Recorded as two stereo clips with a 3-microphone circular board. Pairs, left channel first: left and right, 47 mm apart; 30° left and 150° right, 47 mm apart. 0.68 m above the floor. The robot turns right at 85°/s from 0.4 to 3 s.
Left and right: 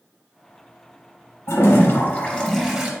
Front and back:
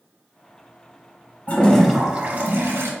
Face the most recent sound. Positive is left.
turn(degrees=-140)